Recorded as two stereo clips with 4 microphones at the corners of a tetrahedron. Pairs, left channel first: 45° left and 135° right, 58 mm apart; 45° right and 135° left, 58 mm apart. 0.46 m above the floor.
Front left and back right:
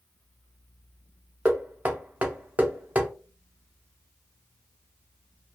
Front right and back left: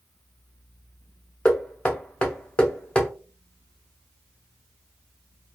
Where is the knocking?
100° right, 0.7 m.